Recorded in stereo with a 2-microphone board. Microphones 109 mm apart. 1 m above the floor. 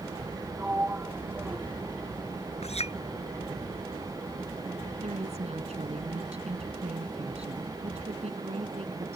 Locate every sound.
0.6 s a sliding door: 15° right (ahead or behind)
2.6 s a clink: 75° left (ahead or behind)
5.0 s a woman speaking: 75° right (ahead or behind)